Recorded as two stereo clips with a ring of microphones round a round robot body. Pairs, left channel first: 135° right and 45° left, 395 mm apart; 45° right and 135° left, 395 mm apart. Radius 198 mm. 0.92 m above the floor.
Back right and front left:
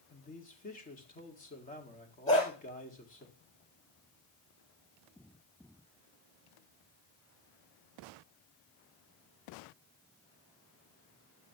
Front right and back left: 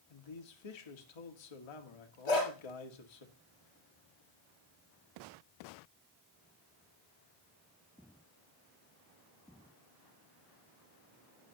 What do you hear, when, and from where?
0.1 s a man speaking: 65° right, 1.8 m
2.3 s a dog barking: 60° right, 7 m